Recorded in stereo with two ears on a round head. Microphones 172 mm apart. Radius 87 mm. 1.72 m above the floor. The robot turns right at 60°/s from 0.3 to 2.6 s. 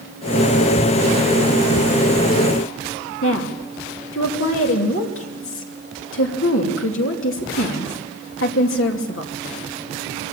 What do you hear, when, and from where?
3.2 s a woman speaking: 80° left, 3 m